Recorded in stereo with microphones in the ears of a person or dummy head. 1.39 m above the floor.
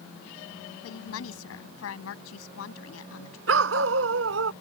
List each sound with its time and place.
0.8 s a woman speaking: 80° left
3.5 s a dog barking: 80° right